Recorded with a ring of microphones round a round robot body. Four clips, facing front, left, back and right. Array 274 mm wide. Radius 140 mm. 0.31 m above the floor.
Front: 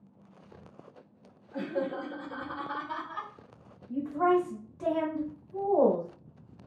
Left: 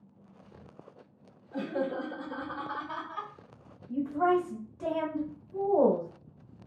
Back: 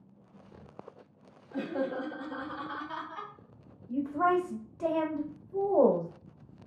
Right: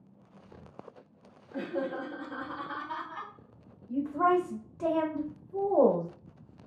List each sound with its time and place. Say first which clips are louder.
1.5 s laughter: left 1 dB, even; 130° left, 1.2 m; by 3.3 s 30° left, 1.4 m
3.9 s a woman speaking: even, front 1 dB; 130° right, 0.9 m